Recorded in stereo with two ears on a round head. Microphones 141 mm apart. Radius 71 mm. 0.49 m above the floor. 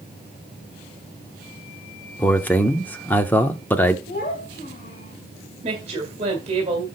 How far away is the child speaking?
About 1.5 m.